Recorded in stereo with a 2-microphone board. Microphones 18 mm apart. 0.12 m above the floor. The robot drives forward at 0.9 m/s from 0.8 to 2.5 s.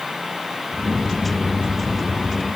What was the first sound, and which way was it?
Only background noise.